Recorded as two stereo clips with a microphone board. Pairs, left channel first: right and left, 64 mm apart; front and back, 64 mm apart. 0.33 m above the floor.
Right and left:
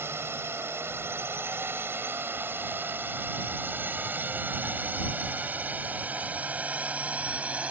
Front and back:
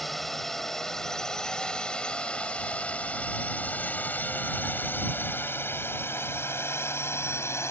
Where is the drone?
85° left; by 7.7 s 25° left.